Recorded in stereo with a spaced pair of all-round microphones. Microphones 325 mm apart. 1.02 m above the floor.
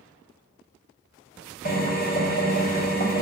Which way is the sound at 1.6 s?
30° left (ahead or behind).